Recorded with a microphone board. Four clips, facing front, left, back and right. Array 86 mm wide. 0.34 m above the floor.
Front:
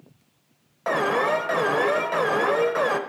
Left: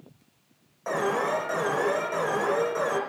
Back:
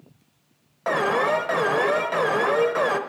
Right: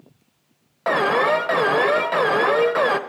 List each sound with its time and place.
0.9 s an alarm: 95° right, 0.7 m